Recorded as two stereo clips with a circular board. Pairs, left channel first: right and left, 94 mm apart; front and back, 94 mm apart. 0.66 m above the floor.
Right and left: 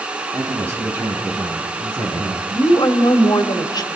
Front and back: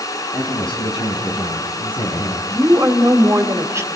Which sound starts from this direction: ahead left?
A man speaking, at 0.3 s.